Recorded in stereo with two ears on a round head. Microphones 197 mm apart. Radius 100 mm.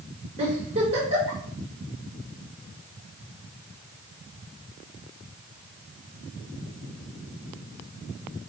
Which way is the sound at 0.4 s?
30° right (ahead or behind).